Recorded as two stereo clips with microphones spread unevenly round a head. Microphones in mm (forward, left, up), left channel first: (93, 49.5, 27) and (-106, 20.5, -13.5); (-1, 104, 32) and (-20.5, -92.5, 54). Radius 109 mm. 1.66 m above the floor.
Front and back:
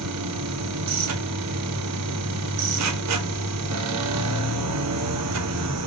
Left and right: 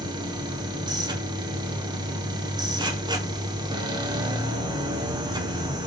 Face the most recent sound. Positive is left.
turn(degrees=-165)